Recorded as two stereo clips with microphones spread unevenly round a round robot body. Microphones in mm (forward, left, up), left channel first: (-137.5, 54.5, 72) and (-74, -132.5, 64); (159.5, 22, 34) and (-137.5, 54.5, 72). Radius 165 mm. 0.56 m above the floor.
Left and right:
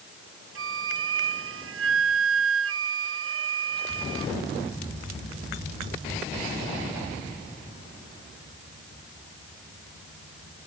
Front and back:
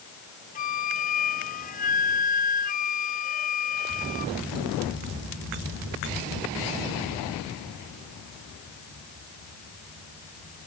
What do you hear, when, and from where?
0.6 s a flute: 75° right